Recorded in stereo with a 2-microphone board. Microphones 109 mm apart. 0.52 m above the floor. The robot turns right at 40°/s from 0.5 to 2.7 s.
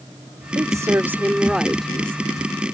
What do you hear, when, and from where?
0.6 s a woman speaking: 50° right; by 2.3 s 20° left